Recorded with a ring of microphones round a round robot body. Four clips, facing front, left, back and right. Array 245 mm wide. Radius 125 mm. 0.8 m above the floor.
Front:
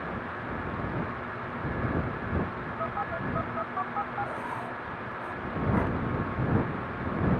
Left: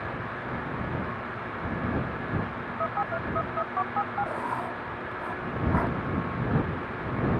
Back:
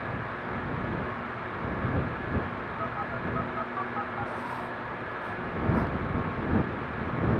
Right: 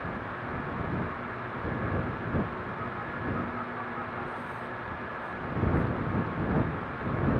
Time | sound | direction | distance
2.8 | a phone buzzing | 70° left | ?
4.2 | writing | 80° left | ?